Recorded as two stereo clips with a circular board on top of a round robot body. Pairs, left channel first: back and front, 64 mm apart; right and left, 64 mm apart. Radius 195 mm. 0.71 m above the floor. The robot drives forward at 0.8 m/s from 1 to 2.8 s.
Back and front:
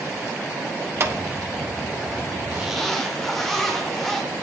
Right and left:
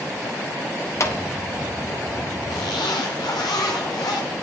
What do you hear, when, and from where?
1.0 s a clap: 50° right, 1.1 m; by 1.1 s 55° right, 1.0 m
2.5 s a zipper: 65° right, 0.6 m; by 4.3 s 95° right, 0.5 m